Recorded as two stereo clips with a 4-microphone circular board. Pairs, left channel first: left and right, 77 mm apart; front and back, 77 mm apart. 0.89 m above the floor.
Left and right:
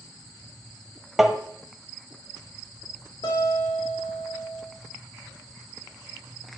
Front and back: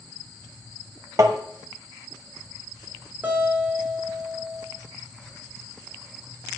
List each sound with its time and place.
1.2 s tapping: 175° right, 0.9 m
3.2 s a guitar: 110° left, 2 m